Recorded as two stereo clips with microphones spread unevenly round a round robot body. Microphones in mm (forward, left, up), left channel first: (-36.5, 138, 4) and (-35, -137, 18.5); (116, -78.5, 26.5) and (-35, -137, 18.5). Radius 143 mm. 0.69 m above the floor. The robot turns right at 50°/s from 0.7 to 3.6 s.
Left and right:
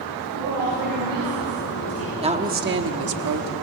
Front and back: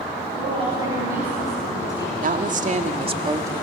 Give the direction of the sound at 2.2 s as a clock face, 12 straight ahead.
5 o'clock.